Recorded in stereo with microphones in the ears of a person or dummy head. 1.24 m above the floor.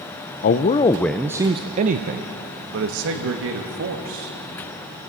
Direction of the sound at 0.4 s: 45° left (ahead or behind).